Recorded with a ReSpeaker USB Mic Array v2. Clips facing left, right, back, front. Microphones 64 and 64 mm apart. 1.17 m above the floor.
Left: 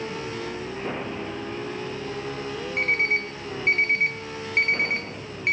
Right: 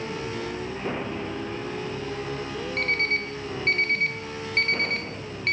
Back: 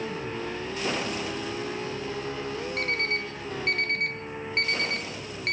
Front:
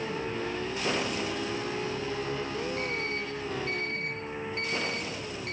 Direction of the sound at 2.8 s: 160° left.